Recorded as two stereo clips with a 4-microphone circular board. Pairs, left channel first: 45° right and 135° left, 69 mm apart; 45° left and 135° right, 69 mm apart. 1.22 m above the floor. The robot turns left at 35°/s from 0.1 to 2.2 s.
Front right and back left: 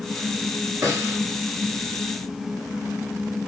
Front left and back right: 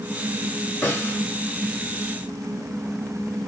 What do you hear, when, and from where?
0.8 s a snare drum: 110° left, 1.9 m; by 1.2 s 95° left, 1.9 m